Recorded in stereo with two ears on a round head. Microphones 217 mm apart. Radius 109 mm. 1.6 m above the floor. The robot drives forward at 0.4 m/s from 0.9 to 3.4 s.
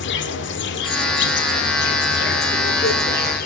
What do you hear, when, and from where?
0.0 s an insect: 50° left (ahead or behind), 1.7 m; by 3.5 s 40° left (ahead or behind), 2.0 m